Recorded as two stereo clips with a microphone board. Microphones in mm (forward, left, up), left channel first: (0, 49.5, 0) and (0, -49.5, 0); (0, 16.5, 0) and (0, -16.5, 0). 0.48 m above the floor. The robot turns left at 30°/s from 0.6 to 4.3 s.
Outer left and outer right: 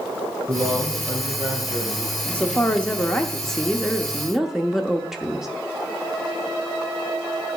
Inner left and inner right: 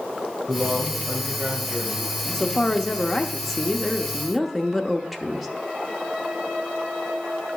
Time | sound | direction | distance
0.5 | a man speaking | 30° right | 1.8 m
2.3 | a woman speaking | 15° left (ahead or behind) | 0.7 m